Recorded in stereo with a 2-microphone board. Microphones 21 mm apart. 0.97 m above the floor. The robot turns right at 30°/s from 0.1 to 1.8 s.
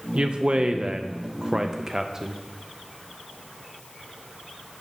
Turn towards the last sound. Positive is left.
turn(degrees=-35)